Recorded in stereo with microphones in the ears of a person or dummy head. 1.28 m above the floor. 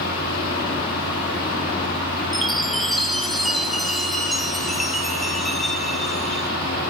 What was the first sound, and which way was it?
A fan, 55° left (ahead or behind).